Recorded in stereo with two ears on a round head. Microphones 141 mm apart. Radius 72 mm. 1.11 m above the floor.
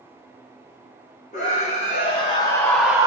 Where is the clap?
No clap in this recording.